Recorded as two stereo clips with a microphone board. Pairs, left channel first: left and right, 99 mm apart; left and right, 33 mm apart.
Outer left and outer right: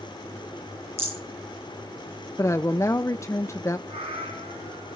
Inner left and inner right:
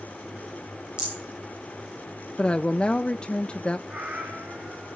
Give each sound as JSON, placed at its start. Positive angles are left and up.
{"t": 1.0, "sound": "a rattle", "side_deg": -25, "distance_m": 9.0}
{"t": 2.4, "sound": "a woman speaking", "side_deg": 30, "distance_m": 0.6}
{"t": 3.9, "sound": "a cat meowing", "side_deg": -65, "distance_m": 4.0}